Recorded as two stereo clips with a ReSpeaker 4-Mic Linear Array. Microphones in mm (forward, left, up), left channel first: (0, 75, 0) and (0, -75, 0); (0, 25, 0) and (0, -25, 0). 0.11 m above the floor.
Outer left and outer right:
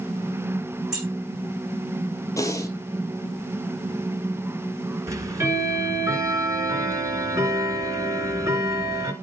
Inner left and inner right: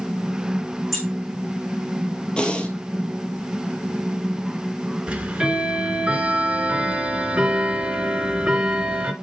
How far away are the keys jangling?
About 5 m.